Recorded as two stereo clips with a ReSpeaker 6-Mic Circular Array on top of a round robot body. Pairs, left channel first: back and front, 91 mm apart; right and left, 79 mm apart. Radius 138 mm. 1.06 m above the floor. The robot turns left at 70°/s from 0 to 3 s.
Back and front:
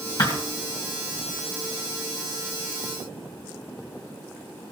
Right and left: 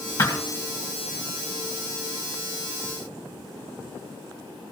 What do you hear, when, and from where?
0.2 s a thud: 130° right, 1.3 m; by 0.4 s 145° right, 1.3 m